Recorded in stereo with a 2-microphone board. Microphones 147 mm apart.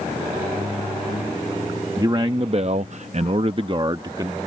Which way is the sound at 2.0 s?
25° right (ahead or behind).